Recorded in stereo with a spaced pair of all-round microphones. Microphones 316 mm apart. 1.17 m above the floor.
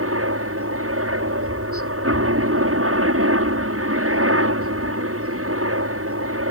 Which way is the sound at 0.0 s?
45° right (ahead or behind).